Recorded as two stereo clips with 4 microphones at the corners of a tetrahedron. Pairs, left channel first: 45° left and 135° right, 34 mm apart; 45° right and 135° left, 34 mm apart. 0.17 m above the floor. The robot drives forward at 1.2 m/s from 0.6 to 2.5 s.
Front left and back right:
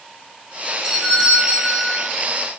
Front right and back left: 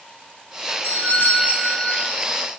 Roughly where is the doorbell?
Ahead right.